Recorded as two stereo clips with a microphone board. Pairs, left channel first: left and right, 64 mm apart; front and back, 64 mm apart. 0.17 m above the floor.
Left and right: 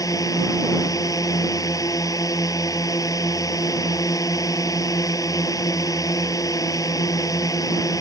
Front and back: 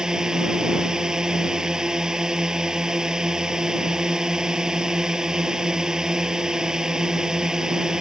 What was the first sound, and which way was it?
A drone, 100° left.